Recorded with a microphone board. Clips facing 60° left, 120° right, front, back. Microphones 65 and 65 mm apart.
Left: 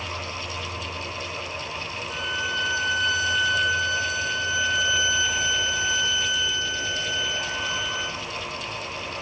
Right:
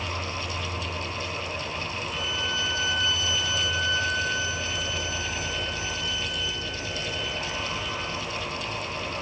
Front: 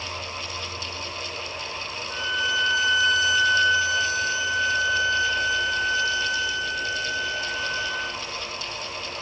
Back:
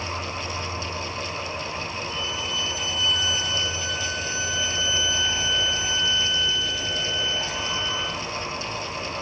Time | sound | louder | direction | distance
0.0 | an insect | right 1 dB, back 3 dB | 175° right | 1.5 m
2.1 | a violin | left 4 dB, front 4 dB | 40° left | 5.5 m